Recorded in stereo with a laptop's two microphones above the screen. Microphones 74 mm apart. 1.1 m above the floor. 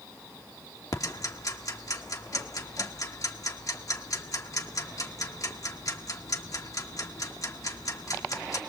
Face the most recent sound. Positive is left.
turn(degrees=50)  # may be behind; listen again after turning